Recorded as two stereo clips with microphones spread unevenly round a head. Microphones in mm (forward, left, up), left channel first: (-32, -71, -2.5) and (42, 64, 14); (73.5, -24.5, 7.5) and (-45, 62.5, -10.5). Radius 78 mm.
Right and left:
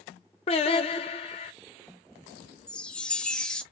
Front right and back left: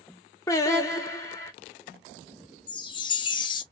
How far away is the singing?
About 0.8 m.